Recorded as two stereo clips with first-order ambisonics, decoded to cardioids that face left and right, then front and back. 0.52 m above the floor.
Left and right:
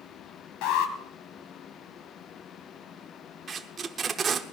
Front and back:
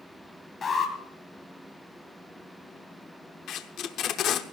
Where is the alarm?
70° left, 2.5 m.